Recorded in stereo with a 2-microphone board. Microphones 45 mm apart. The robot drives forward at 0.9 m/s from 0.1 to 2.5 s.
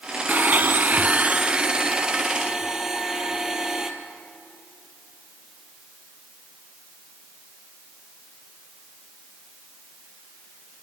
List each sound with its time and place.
0.3 s a blender: 40° right (ahead or behind), 0.6 m; by 3.9 s 15° right (ahead or behind), 1.8 m